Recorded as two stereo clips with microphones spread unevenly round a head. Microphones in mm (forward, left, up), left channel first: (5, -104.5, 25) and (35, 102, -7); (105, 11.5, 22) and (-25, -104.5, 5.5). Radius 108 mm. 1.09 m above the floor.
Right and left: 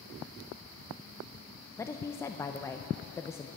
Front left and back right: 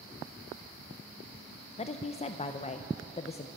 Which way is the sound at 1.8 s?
15° right.